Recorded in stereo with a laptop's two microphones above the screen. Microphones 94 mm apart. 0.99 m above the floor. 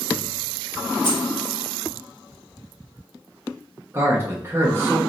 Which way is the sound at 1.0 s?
50° left (ahead or behind).